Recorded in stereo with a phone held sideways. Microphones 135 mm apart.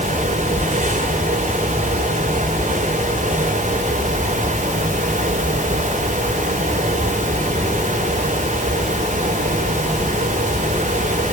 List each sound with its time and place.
0.0 s a fan: 65° right (ahead or behind), 4 m